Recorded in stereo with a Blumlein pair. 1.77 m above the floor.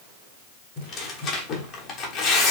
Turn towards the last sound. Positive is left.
turn(degrees=35)